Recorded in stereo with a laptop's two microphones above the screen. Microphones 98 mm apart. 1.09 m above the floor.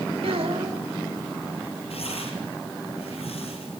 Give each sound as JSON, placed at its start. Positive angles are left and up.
{"t": 0.2, "sound": "a child speaking", "side_deg": -75, "distance_m": 3.0}
{"t": 1.9, "sound": "tearing paper", "side_deg": 85, "distance_m": 8.0}